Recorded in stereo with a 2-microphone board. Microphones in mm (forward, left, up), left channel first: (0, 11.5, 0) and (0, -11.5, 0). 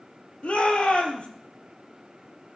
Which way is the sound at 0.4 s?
60° left (ahead or behind).